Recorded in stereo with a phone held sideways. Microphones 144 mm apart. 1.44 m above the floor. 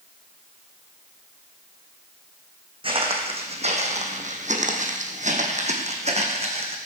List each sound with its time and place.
2.8 s footsteps: 40° right (ahead or behind), 3.5 m; by 6.8 s 45° right (ahead or behind), 4 m